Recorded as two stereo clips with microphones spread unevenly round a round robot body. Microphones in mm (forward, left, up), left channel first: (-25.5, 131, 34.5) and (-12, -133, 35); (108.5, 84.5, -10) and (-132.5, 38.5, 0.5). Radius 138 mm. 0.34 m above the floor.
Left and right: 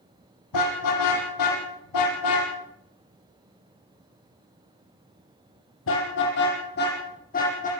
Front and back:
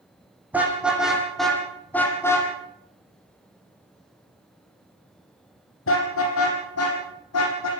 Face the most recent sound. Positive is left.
turn(degrees=30)